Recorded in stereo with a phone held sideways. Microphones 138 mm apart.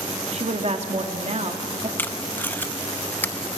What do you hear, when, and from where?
0.3 s a woman speaking: 50° right (ahead or behind), 1.8 m
2.0 s tape being pulled: 15° left (ahead or behind), 0.6 m